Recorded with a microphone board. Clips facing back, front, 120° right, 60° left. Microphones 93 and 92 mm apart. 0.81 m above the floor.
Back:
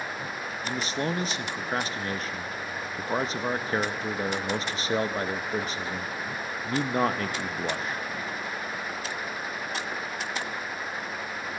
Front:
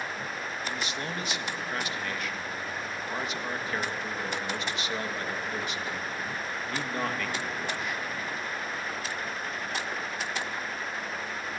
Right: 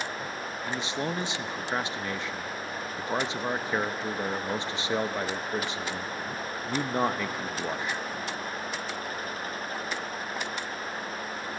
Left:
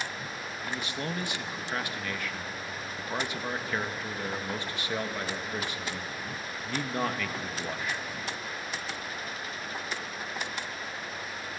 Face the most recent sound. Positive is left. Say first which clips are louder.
# back 8 dB, right 3 dB
turn(degrees=-170)